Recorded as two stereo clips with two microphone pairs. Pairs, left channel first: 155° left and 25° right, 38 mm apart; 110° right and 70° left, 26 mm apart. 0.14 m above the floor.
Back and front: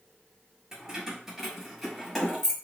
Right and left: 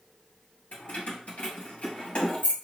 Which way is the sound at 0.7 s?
95° right.